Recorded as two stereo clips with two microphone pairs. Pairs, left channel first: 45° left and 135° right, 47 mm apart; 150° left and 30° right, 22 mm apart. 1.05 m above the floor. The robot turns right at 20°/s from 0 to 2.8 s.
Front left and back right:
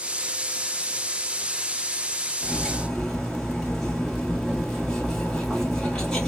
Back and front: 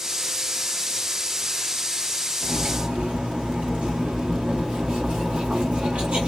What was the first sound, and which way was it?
Cutlery clinking, 40° right.